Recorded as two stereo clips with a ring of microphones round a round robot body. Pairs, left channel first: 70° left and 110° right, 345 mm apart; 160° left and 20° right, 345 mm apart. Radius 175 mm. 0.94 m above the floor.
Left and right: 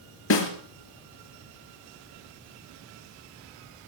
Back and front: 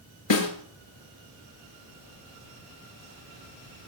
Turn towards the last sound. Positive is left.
turn(degrees=120)